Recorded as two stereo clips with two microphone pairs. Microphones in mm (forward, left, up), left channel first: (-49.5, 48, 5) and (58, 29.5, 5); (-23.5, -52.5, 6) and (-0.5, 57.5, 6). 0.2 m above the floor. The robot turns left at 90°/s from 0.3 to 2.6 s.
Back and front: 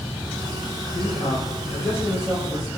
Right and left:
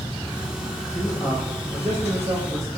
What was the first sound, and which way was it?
A man speaking, 170° right.